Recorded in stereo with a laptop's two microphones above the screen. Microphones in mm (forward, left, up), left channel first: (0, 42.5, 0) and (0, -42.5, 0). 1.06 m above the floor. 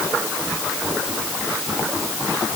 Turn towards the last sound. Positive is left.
No sound to turn to.